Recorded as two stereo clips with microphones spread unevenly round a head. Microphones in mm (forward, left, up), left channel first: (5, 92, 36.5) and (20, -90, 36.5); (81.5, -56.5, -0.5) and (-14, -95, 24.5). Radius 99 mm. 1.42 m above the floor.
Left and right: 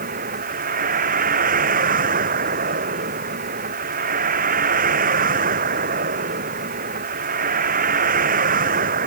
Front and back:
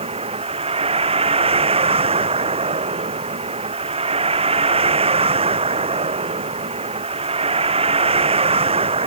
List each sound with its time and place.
0.0 s a vehicle: 135° right